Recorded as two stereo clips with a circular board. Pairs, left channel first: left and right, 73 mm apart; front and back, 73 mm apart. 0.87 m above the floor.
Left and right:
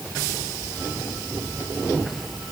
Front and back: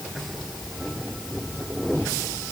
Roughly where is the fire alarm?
I don't hear a fire alarm.